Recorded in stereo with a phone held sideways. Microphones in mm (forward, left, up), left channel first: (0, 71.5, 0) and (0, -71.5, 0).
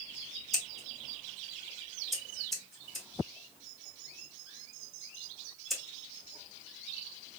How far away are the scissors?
About 1.3 m.